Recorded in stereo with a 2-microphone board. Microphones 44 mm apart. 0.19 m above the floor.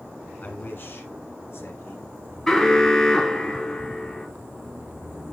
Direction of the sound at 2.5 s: 15° left (ahead or behind).